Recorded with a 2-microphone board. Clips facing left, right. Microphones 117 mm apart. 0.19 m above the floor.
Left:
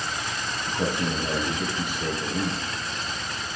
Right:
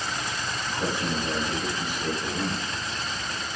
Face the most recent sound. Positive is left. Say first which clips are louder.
# left 2 dB
turn(degrees=65)  # may be behind; listen again after turning